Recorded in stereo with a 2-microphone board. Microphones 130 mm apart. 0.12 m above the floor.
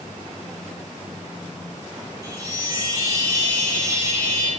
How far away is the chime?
About 4 m.